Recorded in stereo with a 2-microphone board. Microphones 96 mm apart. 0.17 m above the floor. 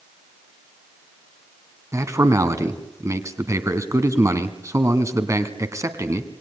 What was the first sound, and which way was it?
A man speaking, 30° right (ahead or behind).